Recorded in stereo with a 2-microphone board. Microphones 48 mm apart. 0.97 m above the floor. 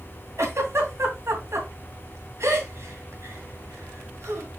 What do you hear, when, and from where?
0.4 s a giggle: 80° right, 2.5 m